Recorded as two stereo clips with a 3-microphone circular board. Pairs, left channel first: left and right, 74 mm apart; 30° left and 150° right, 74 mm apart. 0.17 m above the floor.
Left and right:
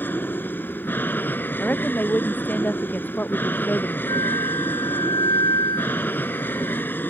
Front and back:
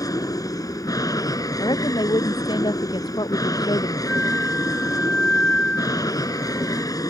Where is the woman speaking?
25° left.